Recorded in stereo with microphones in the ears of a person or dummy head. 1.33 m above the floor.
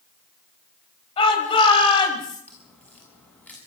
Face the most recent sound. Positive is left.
turn(degrees=10)  # may be behind; listen again after turning